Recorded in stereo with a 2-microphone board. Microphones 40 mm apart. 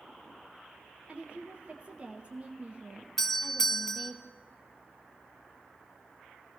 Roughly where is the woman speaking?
Right.